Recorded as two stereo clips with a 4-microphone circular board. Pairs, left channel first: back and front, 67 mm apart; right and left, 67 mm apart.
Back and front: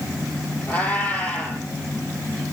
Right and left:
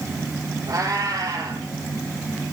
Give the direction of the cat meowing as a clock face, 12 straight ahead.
8 o'clock.